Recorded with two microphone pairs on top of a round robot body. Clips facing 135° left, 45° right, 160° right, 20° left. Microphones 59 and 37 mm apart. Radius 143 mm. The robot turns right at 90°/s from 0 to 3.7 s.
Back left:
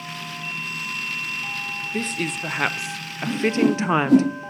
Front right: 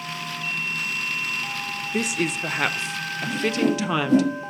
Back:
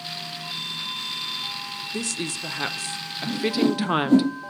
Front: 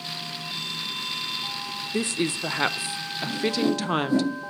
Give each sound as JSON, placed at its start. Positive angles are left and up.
{"t": 1.9, "sound": "a woman speaking", "azimuth_deg": -15, "distance_m": 0.8}
{"t": 3.2, "sound": "a whoosh", "azimuth_deg": 125, "distance_m": 6.5}